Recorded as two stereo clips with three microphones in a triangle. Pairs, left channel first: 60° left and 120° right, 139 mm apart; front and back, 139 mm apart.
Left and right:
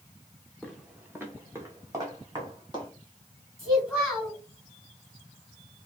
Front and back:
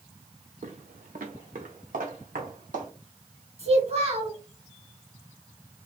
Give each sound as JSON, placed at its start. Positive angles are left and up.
{"t": 0.6, "sound": "footsteps", "azimuth_deg": 150, "distance_m": 0.8}
{"t": 3.6, "sound": "a child speaking", "azimuth_deg": 150, "distance_m": 3.0}